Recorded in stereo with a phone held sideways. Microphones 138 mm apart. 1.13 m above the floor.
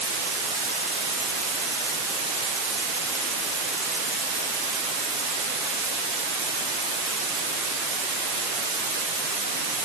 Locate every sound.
Only background noise.